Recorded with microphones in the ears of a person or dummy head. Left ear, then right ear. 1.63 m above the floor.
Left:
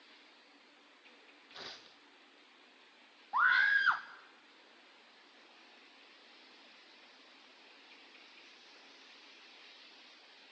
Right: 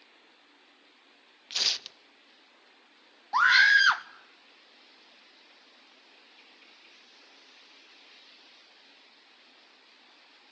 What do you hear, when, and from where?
1.5 s tearing paper: 75° right (ahead or behind), 0.7 m
3.3 s a scream: 80° right, 1.2 m